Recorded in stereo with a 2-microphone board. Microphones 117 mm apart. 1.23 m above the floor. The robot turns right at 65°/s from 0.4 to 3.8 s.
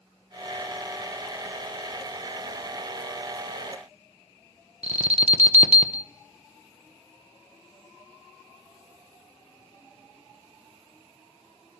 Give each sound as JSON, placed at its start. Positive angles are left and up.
{"t": 4.8, "sound": "an alarm", "side_deg": -60, "distance_m": 0.8}